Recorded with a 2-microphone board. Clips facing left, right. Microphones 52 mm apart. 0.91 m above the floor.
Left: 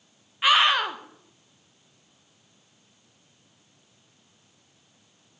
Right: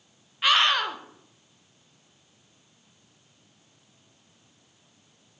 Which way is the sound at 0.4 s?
10° left (ahead or behind).